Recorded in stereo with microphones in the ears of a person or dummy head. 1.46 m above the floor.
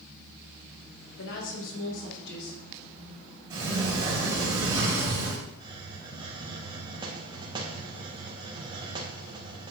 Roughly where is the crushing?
No crushing in this recording.